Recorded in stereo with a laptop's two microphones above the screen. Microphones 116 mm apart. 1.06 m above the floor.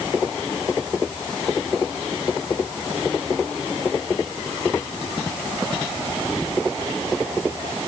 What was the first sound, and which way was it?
Only background noise.